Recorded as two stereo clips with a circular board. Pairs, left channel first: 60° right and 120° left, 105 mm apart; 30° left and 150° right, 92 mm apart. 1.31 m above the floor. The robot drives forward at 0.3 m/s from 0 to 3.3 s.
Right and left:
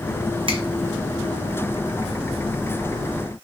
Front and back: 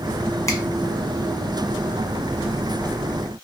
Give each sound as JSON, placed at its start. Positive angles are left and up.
{"t": 0.5, "sound": "a finger snap", "azimuth_deg": 85, "distance_m": 0.9}